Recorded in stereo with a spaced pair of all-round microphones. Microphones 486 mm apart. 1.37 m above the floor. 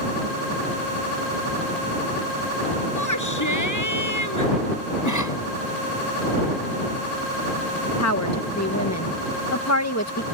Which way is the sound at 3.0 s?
35° left (ahead or behind).